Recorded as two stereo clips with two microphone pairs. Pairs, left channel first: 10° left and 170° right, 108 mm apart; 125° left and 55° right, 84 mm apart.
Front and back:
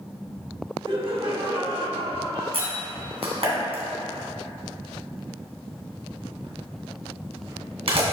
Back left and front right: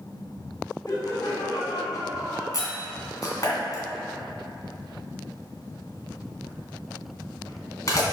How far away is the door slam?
About 2.5 m.